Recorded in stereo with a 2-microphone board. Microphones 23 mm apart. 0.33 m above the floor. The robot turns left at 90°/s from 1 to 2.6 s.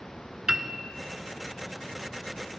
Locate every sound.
0.5 s a piano: 30° right (ahead or behind), 0.6 m